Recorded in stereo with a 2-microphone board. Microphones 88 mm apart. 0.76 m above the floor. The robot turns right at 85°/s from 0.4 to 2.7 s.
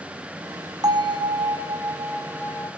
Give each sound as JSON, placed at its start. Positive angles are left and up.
{"t": 0.8, "sound": "a bell", "azimuth_deg": -135, "distance_m": 1.9}